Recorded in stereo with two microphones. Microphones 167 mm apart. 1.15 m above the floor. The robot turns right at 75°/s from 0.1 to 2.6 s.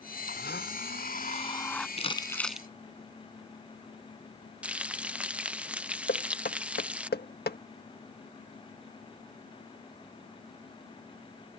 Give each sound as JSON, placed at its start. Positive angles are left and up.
{"t": 0.3, "sound": "a blender", "azimuth_deg": 60}
{"t": 2.0, "sound": "crumpling", "side_deg": 40}
{"t": 4.6, "sound": "frying", "side_deg": -10}
{"t": 6.1, "sound": "knocking", "side_deg": 75}